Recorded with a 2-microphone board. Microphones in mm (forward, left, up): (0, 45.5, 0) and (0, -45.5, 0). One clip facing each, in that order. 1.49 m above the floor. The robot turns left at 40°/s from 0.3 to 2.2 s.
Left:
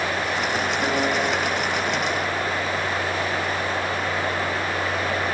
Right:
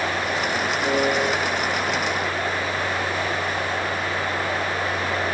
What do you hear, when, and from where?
0.8 s a piano: 40° left (ahead or behind), 4.5 m; by 1.3 s 20° left (ahead or behind), 4.5 m